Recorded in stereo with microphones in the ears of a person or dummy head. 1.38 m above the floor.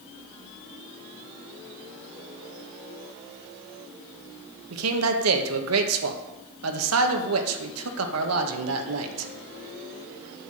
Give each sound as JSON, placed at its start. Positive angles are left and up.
{"t": 4.7, "sound": "a man speaking", "side_deg": -85, "distance_m": 1.4}